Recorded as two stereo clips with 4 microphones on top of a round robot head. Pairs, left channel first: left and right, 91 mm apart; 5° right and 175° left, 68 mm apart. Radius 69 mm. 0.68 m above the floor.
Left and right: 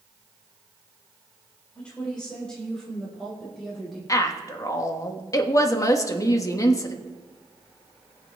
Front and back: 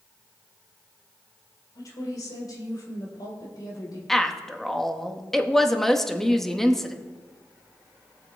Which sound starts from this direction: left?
A woman speaking, at 4.1 s.